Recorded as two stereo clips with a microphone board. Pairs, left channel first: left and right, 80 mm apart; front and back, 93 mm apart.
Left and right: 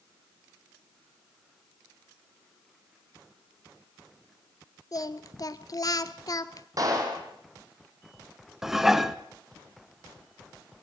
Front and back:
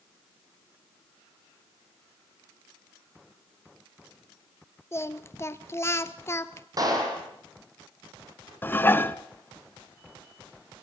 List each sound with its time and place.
4.9 s singing: 55° left, 0.8 m
6.8 s a clap: 135° right, 4.5 m
8.6 s dishes clattering: 15° right, 0.8 m